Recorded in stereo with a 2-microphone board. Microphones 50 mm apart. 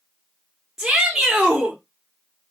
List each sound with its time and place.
0.8 s a shout: 10° right (ahead or behind), 1.3 m